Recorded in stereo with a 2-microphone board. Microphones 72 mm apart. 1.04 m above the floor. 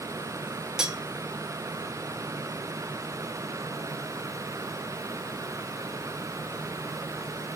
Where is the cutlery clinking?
10° right (ahead or behind), 0.7 m.